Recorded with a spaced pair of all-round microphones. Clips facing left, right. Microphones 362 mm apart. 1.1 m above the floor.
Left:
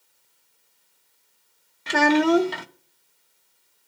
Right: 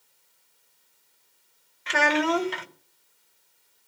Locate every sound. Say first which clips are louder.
1.9 s a child speaking: left 7 dB; 55° left (ahead or behind), 0.6 m